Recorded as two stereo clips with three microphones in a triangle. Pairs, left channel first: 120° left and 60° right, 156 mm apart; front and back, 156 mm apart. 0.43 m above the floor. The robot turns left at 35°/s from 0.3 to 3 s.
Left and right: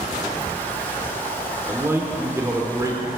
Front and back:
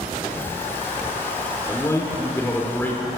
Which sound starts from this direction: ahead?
A man speaking, at 1.7 s.